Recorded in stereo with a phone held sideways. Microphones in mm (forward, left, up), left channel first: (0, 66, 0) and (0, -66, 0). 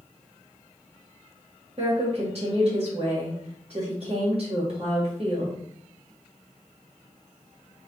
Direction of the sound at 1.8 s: 50° right (ahead or behind).